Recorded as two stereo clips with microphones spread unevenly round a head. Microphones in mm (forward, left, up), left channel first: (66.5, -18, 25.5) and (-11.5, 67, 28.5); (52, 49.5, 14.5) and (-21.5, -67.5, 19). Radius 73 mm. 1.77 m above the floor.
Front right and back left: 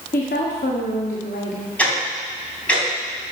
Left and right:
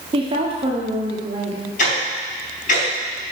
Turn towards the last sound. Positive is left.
turn(degrees=30)